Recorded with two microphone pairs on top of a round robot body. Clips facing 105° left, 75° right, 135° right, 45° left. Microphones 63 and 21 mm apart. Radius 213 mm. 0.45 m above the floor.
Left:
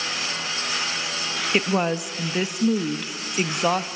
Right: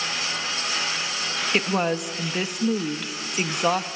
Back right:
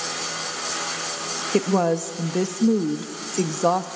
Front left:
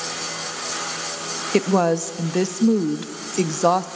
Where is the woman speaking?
35° left, 0.7 m.